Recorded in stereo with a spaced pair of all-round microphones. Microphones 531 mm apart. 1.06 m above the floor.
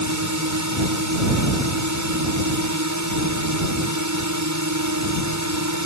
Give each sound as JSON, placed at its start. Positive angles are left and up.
{"t": 0.0, "sound": "a drone", "side_deg": -30}